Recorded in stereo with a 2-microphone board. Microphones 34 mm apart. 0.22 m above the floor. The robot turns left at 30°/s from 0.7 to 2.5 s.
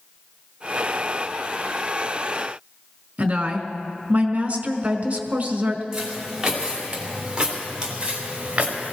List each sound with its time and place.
3.2 s a woman speaking: 40° right (ahead or behind), 1.8 m
5.9 s footsteps: 15° right (ahead or behind), 5 m; by 8.9 s 40° right (ahead or behind), 3.5 m